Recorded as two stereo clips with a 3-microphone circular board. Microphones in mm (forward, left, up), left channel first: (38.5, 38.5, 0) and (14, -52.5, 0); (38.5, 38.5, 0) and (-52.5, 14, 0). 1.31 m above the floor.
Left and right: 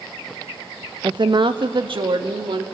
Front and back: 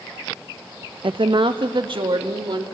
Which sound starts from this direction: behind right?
A woman speaking, at 1.0 s.